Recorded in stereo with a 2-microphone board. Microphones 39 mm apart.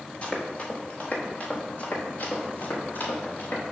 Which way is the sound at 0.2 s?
35° left (ahead or behind).